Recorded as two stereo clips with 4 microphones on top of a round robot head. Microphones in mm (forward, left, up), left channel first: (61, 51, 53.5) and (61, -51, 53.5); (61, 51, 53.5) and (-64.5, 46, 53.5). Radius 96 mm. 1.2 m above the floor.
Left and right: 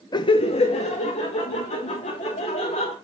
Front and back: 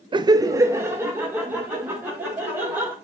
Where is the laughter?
135° left, 0.5 m; by 2.9 s 105° left, 3.5 m.